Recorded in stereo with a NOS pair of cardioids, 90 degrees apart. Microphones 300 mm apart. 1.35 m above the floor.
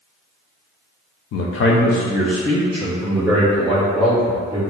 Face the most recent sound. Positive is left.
turn(degrees=-10)